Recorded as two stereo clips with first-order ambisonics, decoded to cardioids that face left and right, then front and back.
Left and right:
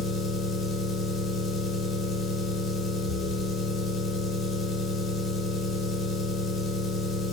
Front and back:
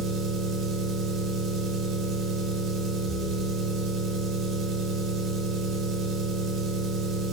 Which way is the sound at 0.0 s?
150° left.